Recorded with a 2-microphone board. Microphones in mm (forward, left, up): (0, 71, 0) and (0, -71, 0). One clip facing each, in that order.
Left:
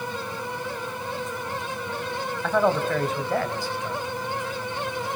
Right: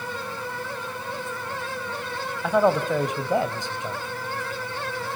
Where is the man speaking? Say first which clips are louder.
Right 2 dB; 10° right (ahead or behind), 2 m; by 4.0 s 25° right (ahead or behind), 1.7 m.